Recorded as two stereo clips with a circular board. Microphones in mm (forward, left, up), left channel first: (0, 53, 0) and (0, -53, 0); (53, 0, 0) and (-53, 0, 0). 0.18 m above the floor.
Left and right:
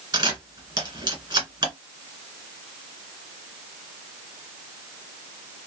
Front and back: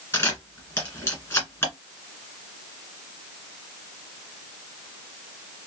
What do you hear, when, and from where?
0.1 s a camera shutter: 55° right, 1.7 m